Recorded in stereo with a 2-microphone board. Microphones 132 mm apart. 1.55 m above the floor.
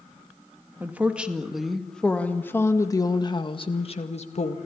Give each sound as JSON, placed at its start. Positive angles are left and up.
{"t": 0.8, "sound": "a woman speaking", "side_deg": -15, "distance_m": 2.0}